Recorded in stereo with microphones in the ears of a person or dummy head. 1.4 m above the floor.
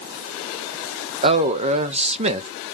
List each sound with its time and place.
1.2 s a man speaking: 30° right (ahead or behind), 0.6 m